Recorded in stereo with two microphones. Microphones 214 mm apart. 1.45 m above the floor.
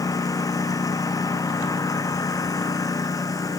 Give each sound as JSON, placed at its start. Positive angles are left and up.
{"t": 0.0, "sound": "a lawn mower", "side_deg": 15}